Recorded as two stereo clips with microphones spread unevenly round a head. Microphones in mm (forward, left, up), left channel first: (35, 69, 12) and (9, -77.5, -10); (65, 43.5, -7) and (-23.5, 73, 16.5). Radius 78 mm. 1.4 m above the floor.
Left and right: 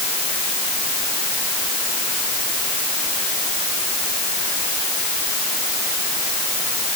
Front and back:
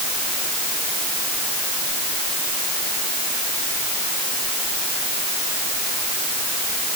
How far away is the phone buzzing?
I don't hear a phone buzzing.